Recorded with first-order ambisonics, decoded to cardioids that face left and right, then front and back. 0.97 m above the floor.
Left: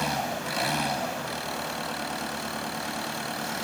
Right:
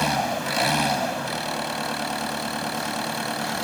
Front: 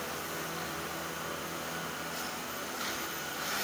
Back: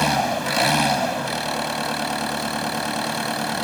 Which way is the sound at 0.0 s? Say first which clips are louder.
Right 5 dB, back 17 dB; 165° right.